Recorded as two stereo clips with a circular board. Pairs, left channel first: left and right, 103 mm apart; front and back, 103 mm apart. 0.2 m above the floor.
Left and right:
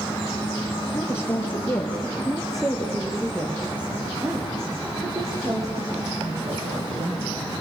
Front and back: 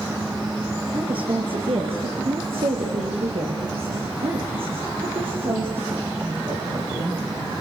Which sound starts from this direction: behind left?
A woman speaking, at 0.9 s.